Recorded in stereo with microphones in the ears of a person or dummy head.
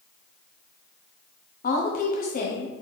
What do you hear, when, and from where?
1.6 s a woman speaking: 50° left (ahead or behind), 0.7 m